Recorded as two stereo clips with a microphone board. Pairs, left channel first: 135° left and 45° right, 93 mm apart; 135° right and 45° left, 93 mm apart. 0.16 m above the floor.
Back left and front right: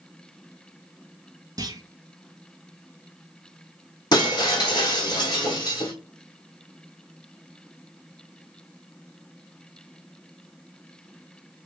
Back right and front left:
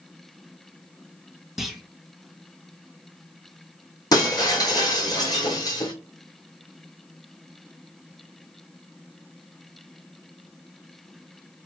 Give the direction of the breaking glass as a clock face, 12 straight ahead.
6 o'clock.